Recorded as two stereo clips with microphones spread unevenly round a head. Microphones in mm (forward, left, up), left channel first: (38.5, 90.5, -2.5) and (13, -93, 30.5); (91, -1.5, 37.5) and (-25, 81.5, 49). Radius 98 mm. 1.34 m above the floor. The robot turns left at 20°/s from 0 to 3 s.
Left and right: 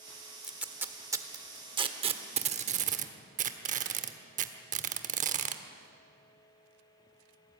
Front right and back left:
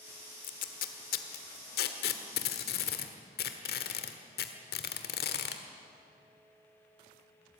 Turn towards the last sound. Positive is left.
turn(degrees=-70)